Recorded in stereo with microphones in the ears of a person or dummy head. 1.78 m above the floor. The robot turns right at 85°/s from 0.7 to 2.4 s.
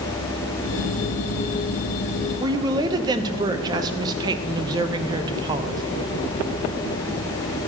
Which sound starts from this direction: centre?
A woman speaking, at 2.4 s.